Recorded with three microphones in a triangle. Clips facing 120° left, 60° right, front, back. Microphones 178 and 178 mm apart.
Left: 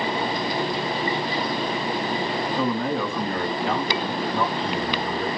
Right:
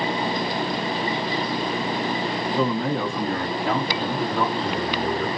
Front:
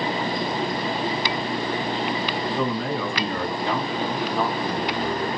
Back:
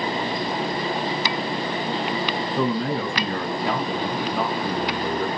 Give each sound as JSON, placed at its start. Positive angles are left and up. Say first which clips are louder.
{"t": 2.5, "sound": "a man speaking", "louder": "right 2 dB, back 4 dB", "azimuth_deg": -115, "distance_m": 3.5}